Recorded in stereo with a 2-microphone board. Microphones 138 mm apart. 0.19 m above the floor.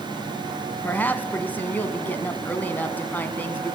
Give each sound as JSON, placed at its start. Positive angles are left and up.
{"t": 0.8, "sound": "a woman speaking", "side_deg": 15, "distance_m": 1.3}